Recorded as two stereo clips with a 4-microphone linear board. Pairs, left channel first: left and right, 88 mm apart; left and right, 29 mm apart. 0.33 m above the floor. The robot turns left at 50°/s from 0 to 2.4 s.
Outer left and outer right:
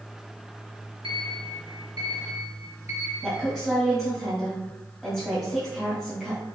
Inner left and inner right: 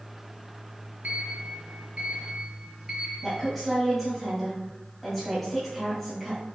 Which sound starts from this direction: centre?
A woman speaking, at 3.2 s.